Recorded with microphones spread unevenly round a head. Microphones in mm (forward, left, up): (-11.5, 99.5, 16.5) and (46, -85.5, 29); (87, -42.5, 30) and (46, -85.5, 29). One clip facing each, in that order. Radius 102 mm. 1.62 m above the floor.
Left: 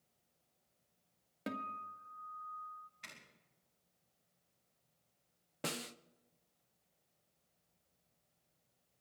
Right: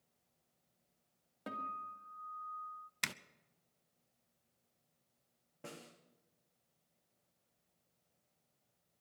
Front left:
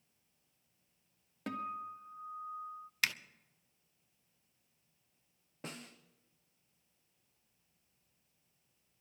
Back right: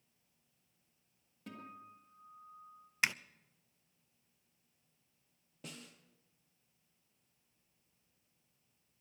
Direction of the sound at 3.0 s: 60° right.